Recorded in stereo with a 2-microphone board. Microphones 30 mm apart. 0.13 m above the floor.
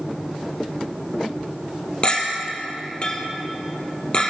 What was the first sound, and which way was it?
A clink, 35° left (ahead or behind).